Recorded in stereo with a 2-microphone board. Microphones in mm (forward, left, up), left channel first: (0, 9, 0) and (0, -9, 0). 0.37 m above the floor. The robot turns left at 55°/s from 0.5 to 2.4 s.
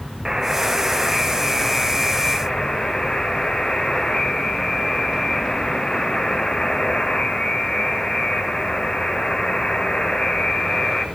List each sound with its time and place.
0.2 s a buzzer: 145° right, 1.0 m; by 11.1 s 110° left, 1.0 m